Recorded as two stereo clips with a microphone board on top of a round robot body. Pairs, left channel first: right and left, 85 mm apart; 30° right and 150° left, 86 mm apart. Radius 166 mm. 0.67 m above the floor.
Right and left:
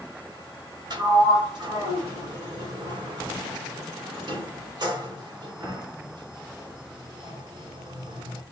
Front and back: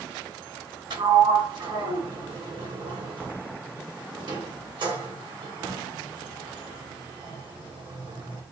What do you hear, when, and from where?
0.9 s a sliding door: 125° left, 1.3 m